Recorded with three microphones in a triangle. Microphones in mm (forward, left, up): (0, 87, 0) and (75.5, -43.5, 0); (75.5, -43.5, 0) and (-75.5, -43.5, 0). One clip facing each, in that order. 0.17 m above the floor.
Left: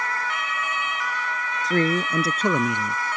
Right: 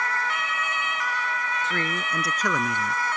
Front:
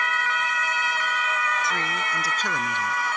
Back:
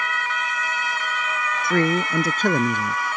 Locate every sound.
1.6 s a man speaking: 165° left; by 3.0 s 170° right